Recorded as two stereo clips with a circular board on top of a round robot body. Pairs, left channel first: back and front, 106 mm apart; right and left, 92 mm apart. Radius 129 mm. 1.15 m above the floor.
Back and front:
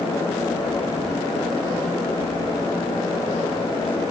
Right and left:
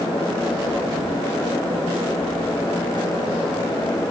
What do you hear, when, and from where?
Only background noise.